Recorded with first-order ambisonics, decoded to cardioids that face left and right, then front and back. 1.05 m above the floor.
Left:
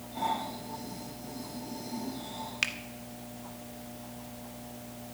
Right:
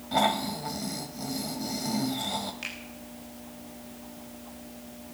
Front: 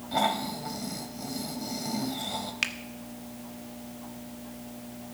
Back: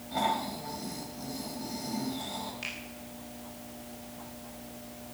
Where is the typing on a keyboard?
I don't hear typing on a keyboard.